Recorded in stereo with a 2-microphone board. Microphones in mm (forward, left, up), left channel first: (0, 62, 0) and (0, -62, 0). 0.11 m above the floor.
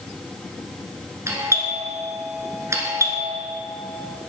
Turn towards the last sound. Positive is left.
turn(degrees=-25)  # may be behind; listen again after turning